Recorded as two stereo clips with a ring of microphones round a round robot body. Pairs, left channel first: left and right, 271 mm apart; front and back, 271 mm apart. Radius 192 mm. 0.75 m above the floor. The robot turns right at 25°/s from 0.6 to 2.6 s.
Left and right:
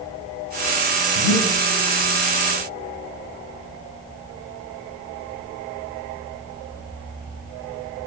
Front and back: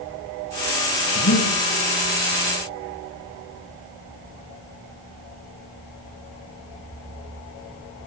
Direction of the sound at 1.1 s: 40° left.